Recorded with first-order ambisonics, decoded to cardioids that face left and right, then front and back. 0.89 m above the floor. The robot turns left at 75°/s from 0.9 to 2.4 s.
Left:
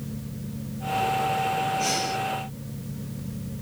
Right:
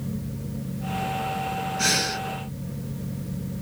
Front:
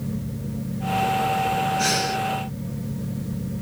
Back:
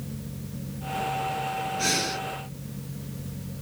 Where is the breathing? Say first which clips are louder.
Right 2 dB, front 4 dB; 60° right, 2 m; by 2.2 s 95° right, 2 m.